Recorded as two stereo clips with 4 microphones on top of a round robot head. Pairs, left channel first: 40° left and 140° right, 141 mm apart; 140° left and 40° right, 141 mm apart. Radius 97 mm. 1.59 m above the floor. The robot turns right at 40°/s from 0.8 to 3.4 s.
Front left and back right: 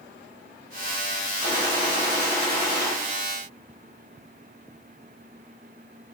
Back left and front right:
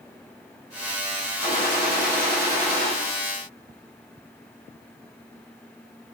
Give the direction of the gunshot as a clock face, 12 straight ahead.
1 o'clock.